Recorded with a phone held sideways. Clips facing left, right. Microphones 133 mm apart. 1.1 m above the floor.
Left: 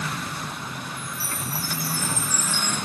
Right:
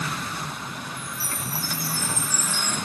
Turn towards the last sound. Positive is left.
turn(degrees=70)  # may be behind; listen again after turning